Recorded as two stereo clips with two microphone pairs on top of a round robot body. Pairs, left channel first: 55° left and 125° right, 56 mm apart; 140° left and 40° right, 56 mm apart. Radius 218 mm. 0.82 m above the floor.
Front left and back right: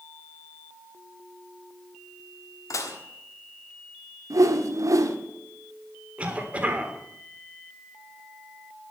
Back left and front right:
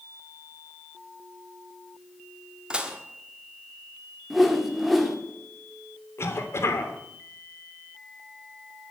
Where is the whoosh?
130° right, 1.7 m.